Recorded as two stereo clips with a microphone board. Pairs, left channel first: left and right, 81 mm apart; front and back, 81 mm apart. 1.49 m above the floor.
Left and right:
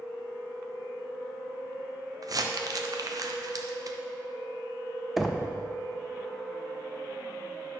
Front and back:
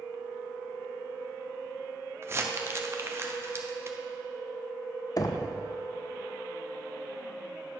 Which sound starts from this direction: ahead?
Knocking, at 5.2 s.